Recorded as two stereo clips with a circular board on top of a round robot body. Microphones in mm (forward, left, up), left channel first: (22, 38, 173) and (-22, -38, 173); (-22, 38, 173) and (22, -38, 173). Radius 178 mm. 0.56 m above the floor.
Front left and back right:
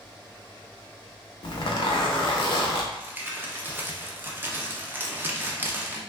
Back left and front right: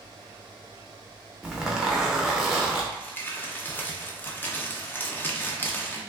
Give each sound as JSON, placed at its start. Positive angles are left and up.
{"t": 1.4, "sound": "a zipper", "azimuth_deg": 25, "distance_m": 0.5}
{"t": 2.9, "sound": "crumpling", "azimuth_deg": 180, "distance_m": 0.8}